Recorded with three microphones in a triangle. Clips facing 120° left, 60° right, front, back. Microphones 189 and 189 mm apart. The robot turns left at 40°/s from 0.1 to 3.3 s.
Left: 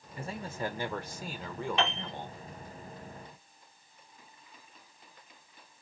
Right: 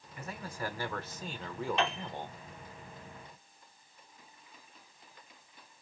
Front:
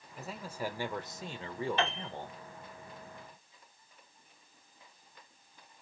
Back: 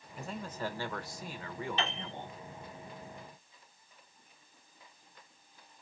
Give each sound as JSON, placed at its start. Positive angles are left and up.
{"t": 0.2, "sound": "a man speaking", "azimuth_deg": 90, "distance_m": 1.0}
{"t": 1.8, "sound": "a piano", "azimuth_deg": 30, "distance_m": 3.0}